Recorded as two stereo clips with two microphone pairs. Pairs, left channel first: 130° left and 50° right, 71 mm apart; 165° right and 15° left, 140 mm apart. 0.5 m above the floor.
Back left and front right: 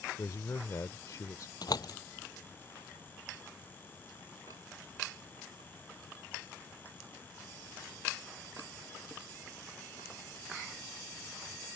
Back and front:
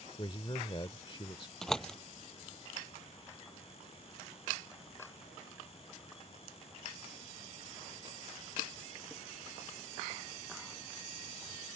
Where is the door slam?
110° left.